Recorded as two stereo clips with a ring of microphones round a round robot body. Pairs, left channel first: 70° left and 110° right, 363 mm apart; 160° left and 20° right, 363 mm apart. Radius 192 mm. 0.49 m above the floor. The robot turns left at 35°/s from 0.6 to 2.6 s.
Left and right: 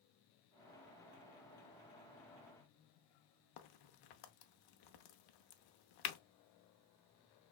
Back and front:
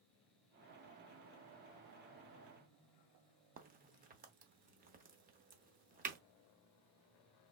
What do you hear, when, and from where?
3.6 s a crack: 45° left, 0.8 m